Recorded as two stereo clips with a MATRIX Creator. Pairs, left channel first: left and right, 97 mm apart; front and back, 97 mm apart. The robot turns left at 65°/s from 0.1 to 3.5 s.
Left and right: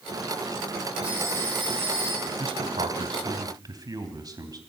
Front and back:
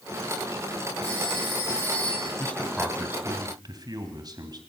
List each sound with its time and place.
1.0 s a phone ringing: 10° right, 6.5 m; by 2.3 s 95° right, 6.5 m
2.4 s a man speaking: 65° right, 3 m; by 4.6 s 135° right, 3 m